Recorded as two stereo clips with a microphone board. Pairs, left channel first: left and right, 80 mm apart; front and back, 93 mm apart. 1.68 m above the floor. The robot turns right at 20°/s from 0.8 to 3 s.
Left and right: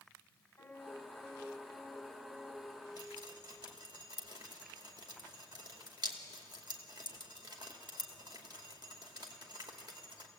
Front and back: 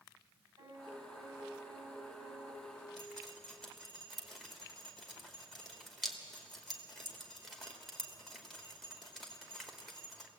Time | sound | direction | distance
0.6 | a piano | 150° left | 7 m
3.0 | dripping | 90° right | 2.5 m